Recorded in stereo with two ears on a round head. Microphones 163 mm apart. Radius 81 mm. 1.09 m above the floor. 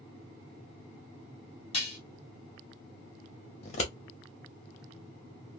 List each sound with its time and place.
1.7 s dishes clattering: 30° left (ahead or behind), 1.6 m
3.6 s scissors: 35° left (ahead or behind), 1.2 m